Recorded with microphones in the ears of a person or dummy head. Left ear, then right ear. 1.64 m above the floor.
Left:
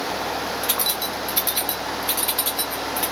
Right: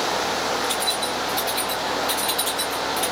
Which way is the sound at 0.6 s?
70° left (ahead or behind).